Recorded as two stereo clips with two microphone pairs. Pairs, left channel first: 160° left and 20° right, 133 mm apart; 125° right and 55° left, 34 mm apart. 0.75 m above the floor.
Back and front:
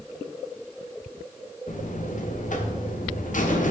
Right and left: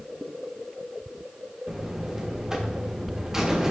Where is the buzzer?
135° left, 1.2 m.